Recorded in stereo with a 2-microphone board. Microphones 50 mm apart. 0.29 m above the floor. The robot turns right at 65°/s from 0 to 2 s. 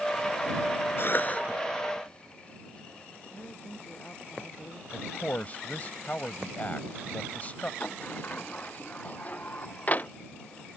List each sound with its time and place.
1.0 s a cough: 55° left (ahead or behind); by 1.4 s 25° left (ahead or behind)
3.3 s a woman speaking: 40° left (ahead or behind)
4.9 s a man speaking: 30° left (ahead or behind)
7.8 s a sliding door: 35° left (ahead or behind)